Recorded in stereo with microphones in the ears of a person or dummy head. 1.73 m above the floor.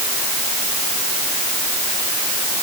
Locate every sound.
Only background noise.